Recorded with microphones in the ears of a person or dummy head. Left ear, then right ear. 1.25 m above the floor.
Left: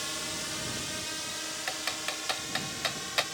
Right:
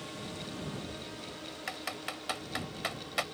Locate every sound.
0.0 s a drone: 55° left (ahead or behind); by 3.4 s 65° left (ahead or behind)
1.7 s typing on a keyboard: 15° left (ahead or behind)